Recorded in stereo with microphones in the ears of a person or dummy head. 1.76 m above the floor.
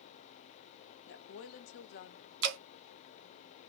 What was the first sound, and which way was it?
A woman speaking, 70° left (ahead or behind).